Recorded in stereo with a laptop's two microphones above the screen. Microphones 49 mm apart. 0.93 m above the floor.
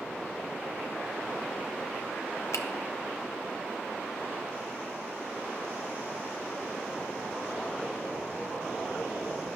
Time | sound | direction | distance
2.5 | a finger snap | 85° left | 0.8 m